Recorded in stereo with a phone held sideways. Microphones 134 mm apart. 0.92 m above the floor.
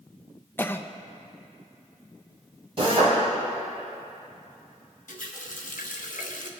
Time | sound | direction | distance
0.6 | a cough | 15° left (ahead or behind) | 0.6 m
2.8 | a drill | 40° right (ahead or behind) | 4 m
5.1 | a running tap | 75° left (ahead or behind) | 1.0 m